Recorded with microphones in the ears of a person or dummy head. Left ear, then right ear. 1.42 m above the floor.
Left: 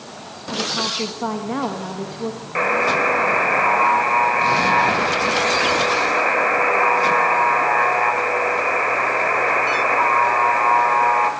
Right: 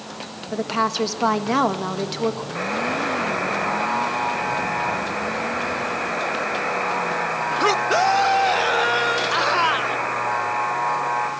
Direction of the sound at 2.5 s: 50° left (ahead or behind).